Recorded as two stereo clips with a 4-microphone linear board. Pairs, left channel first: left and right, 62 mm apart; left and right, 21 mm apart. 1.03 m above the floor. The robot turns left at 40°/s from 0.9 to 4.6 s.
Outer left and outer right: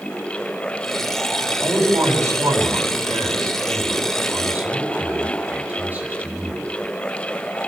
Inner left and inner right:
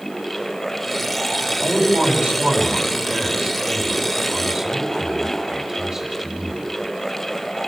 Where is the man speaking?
35° right, 10 m; by 6.7 s 155° right, 10 m.